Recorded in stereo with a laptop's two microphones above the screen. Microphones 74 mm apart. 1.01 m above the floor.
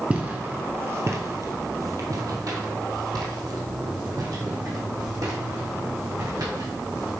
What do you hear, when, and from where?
0.1 s footsteps: 20° right (ahead or behind), 1.1 m; by 7.1 s 75° right (ahead or behind), 4 m